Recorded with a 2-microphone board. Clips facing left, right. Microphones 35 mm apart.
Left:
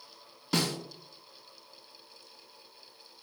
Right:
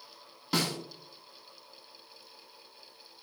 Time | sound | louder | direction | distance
0.5 | a snare drum | even | 5° right (ahead or behind) | 0.9 m